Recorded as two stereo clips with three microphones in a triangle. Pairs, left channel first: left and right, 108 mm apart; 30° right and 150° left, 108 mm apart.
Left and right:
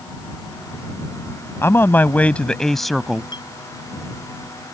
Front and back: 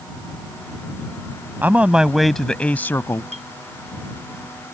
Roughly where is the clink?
Behind left.